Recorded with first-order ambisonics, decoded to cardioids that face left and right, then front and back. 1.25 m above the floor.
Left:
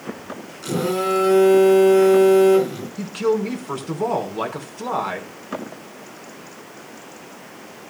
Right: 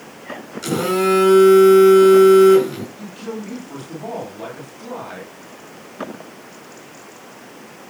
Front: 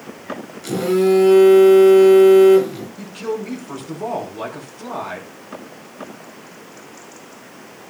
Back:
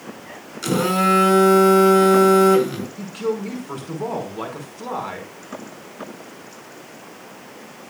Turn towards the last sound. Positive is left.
turn(degrees=100)